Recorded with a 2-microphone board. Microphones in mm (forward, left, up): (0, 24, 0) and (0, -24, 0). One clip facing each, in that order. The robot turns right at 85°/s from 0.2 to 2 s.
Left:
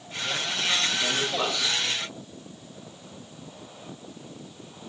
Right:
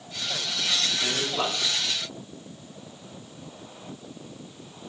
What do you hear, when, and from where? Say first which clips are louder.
1.0 s a man speaking: left 1 dB; 170° right, 6 m; by 1.8 s 100° right, 6 m